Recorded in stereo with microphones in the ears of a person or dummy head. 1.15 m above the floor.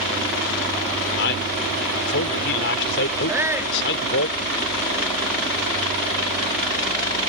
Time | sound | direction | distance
1.2 | a man speaking | 60° left (ahead or behind) | ?
3.3 | a shout | 20° right (ahead or behind) | ?